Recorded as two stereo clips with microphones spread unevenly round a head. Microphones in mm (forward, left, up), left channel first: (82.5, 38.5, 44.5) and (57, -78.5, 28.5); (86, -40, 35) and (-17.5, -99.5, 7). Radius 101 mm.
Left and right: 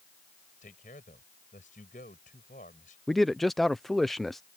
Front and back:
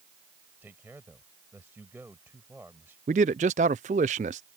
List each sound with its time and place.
0.6 s a man speaking: 130° left
3.1 s a man speaking: 165° left